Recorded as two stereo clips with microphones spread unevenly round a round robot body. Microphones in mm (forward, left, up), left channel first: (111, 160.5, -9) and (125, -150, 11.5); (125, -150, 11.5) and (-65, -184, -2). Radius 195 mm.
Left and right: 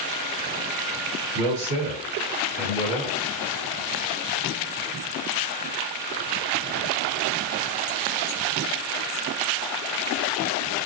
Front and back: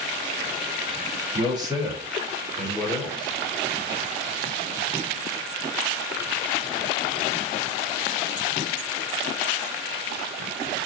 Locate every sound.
1.3 s a man speaking: 120° right, 1.7 m; by 3.4 s 35° right, 1.5 m